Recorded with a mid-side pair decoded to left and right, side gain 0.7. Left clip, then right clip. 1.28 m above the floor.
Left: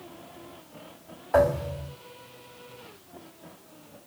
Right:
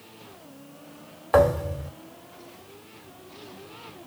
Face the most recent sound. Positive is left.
turn(degrees=-45)